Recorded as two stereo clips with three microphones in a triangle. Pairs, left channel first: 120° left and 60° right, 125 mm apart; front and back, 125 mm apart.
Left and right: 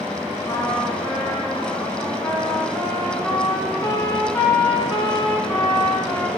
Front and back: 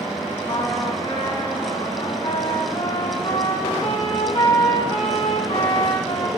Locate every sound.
0.5 s a trumpet: 50° left, 1.2 m